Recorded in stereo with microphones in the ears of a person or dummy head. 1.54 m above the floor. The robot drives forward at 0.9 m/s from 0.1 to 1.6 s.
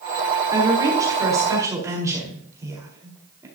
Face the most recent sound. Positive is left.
turn(degrees=-15)  # may be behind; listen again after turning